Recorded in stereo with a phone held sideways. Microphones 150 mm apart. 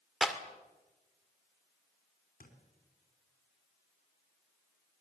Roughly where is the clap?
Centre.